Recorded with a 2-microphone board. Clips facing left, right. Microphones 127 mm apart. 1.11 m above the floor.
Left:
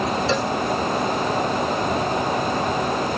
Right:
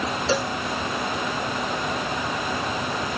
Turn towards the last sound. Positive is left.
turn(degrees=-5)  # may be behind; listen again after turning